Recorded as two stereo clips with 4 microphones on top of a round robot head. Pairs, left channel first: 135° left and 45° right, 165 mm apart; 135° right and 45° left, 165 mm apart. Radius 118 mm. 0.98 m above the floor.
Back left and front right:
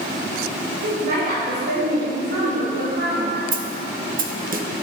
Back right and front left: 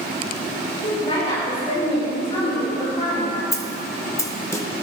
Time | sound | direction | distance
0.8 | a woman speaking | 80° right | 5.5 m
3.5 | a snare drum | 65° right | 1.3 m